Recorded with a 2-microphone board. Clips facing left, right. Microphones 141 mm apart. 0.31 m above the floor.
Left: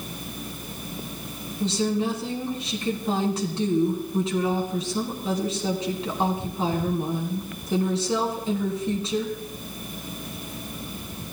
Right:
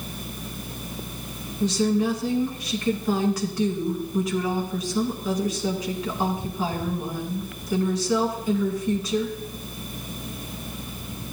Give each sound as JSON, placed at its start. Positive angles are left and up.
{"t": 1.6, "sound": "a woman speaking", "side_deg": 30, "distance_m": 2.5}